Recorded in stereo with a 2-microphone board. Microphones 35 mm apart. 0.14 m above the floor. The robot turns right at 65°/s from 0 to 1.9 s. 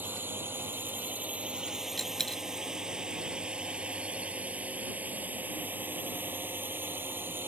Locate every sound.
0.0 s a drone: 55° right (ahead or behind); by 7.5 s 65° right (ahead or behind)
2.0 s a dropped coin: 10° left (ahead or behind)